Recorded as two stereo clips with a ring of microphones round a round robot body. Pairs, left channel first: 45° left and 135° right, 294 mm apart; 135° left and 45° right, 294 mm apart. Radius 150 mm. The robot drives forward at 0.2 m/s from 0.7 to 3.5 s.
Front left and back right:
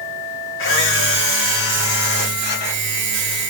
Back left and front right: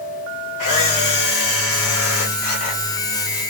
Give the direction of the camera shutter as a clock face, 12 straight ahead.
9 o'clock.